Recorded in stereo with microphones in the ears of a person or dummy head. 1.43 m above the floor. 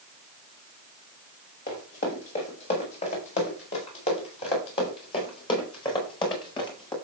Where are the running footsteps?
50° left (ahead or behind), 6 m; by 6.9 s 30° left (ahead or behind), 8.5 m.